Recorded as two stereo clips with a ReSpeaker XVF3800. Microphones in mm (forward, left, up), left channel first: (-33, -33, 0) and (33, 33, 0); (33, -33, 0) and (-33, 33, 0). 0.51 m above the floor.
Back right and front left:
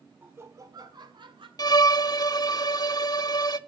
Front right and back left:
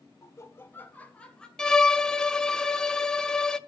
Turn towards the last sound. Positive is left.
turn(degrees=-125)